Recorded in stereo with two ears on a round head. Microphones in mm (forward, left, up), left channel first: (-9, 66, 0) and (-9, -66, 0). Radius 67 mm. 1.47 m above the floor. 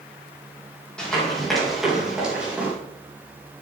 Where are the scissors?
I don't hear scissors.